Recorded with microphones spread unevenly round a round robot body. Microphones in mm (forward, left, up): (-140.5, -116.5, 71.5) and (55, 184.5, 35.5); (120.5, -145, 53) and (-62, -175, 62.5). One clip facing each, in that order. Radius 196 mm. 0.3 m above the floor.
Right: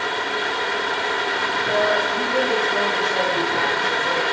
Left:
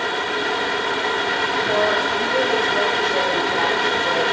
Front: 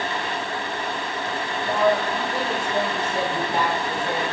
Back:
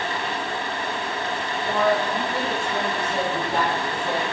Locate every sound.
1.6 s a woman speaking: 60° right, 5 m